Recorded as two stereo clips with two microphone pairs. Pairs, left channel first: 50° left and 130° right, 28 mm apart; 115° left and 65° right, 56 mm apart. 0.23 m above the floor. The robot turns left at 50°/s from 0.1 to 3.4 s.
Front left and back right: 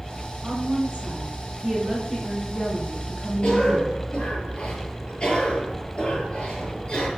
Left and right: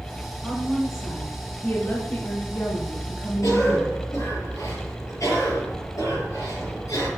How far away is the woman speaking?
About 3 m.